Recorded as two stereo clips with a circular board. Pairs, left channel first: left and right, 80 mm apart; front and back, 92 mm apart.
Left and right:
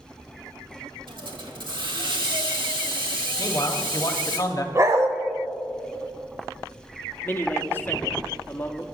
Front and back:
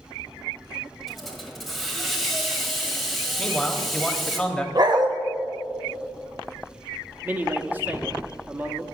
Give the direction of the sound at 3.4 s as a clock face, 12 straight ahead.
9 o'clock.